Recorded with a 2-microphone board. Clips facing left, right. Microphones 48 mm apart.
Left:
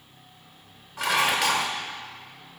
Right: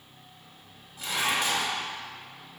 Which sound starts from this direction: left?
Dishes clattering, at 1.0 s.